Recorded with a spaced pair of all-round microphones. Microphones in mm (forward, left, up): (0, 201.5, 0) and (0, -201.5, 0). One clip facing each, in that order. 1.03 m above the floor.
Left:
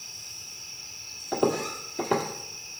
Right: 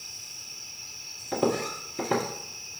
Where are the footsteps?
15° right (ahead or behind), 1.4 m.